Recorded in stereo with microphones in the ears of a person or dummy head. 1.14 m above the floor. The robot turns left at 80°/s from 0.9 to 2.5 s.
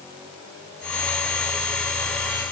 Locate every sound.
Only background noise.